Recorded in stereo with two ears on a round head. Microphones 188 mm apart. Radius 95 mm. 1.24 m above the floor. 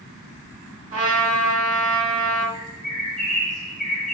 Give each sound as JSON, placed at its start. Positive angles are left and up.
{"t": 0.9, "sound": "a trumpet", "side_deg": -25, "distance_m": 1.8}
{"t": 2.5, "sound": "a bird", "side_deg": 0, "distance_m": 1.1}